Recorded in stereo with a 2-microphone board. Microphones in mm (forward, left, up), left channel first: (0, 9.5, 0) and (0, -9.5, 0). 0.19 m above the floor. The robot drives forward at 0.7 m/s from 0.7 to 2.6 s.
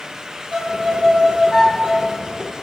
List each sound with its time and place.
0.5 s a violin: 45° right (ahead or behind), 3.5 m; by 2.2 s 60° right (ahead or behind), 3 m